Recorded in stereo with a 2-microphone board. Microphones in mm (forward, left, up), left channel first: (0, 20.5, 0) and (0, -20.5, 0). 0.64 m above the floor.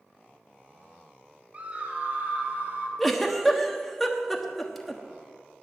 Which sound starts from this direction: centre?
A giggle, at 3.0 s.